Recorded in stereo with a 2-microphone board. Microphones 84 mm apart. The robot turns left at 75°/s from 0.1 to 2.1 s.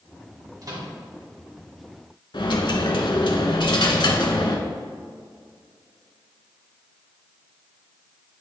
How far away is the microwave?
About 1.7 m.